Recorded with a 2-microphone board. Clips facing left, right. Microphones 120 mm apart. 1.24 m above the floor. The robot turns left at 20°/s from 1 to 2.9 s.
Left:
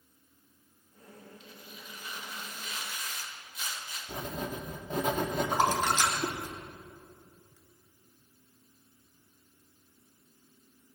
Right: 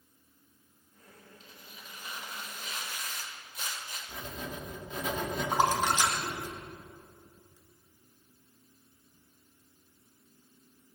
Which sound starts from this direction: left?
Writing, at 4.1 s.